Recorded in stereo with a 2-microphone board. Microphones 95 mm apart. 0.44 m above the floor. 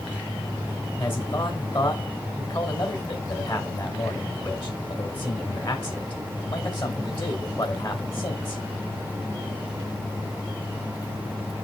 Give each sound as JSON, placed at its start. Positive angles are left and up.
{"t": 1.0, "sound": "a man speaking", "side_deg": 50, "distance_m": 2.5}